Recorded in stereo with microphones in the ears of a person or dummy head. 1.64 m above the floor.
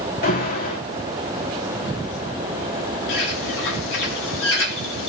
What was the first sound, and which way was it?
An alarm, 45° left (ahead or behind).